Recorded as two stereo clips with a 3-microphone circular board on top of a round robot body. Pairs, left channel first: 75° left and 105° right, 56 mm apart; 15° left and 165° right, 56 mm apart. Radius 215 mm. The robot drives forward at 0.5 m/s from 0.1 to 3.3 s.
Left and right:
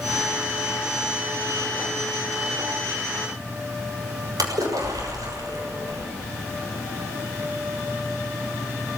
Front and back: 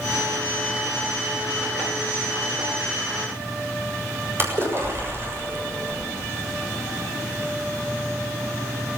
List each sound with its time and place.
4.4 s a splash: 115° right, 7 m